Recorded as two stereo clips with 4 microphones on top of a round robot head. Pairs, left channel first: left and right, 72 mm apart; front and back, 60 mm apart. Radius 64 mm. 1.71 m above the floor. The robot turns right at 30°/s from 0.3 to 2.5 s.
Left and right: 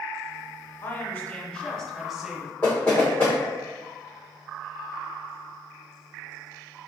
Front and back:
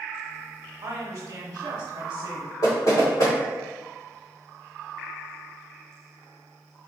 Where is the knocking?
20° left, 1.8 m.